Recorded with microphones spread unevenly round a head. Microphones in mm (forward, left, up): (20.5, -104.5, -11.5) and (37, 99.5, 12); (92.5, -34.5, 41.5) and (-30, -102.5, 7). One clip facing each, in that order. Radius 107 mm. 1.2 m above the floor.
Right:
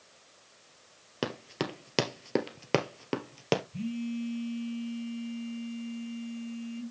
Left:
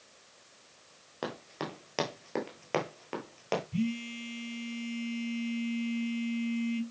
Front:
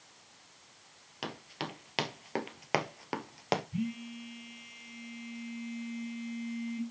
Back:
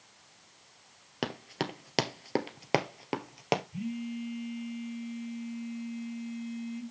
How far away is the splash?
No splash in this recording.